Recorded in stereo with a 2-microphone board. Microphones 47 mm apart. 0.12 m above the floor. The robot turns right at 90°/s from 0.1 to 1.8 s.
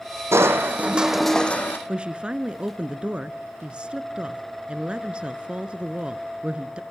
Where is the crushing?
80° right, 2 m; by 1.8 s 55° left, 2 m.